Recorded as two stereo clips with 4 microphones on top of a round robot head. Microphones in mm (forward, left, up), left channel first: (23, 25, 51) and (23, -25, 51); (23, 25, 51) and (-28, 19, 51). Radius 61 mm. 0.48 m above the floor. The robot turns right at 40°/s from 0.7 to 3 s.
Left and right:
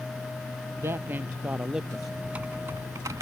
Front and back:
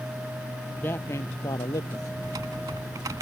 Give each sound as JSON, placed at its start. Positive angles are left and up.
{"t": 0.8, "sound": "a man speaking", "azimuth_deg": -55}
{"t": 2.2, "sound": "typing on a keyboard", "azimuth_deg": -165}